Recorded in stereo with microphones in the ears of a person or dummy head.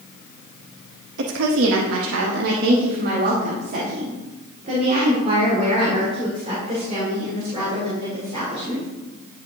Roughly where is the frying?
I don't hear frying.